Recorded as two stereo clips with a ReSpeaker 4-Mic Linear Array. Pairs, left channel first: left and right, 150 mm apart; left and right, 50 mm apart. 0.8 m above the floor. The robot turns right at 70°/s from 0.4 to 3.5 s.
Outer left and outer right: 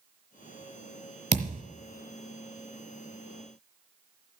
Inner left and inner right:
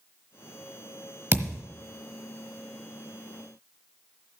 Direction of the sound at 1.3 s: 50° right (ahead or behind).